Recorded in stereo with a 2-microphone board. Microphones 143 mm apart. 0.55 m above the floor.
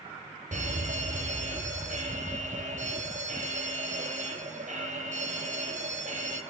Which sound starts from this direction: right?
A fire alarm, at 0.5 s.